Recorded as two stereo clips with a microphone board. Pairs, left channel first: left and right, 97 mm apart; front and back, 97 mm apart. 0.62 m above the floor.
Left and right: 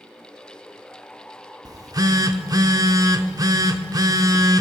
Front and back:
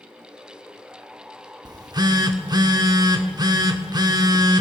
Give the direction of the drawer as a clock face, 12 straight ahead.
No drawer in this recording.